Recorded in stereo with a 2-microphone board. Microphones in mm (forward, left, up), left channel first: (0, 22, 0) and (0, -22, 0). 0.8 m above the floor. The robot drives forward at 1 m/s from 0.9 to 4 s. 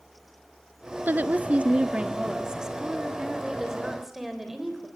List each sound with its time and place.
1.1 s a woman speaking: 45° right (ahead or behind), 0.8 m; by 4.9 s 10° right (ahead or behind), 3 m